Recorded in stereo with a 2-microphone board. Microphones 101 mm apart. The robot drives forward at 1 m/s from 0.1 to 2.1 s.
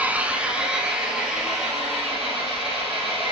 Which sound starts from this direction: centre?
An engine running, at 0.0 s.